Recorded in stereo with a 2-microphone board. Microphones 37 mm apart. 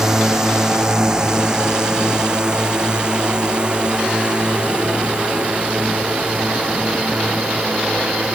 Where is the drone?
15° right (ahead or behind); by 8.4 s 30° right (ahead or behind).